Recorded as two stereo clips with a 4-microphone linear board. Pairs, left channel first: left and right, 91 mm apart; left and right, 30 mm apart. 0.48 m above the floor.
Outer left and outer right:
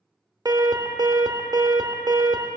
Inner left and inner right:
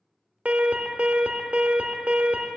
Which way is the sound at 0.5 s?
50° right (ahead or behind).